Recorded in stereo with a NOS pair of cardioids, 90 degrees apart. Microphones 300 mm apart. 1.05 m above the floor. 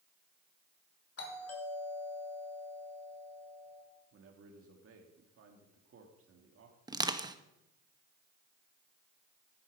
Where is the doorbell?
50° left, 3.5 m.